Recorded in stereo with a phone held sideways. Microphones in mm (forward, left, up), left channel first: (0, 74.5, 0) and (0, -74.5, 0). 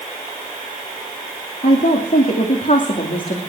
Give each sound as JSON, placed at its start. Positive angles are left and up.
{"t": 1.6, "sound": "a woman speaking", "side_deg": 70, "distance_m": 2.5}